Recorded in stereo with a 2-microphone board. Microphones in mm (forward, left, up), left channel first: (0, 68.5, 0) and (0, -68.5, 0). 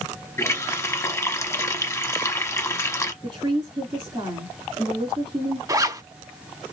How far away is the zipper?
About 0.6 m.